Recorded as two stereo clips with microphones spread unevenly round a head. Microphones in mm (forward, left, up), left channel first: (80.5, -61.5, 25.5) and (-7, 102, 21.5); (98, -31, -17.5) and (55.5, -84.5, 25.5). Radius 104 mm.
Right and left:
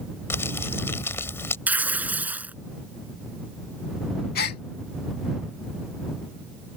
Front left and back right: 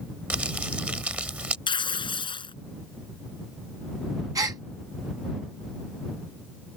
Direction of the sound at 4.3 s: 110° right.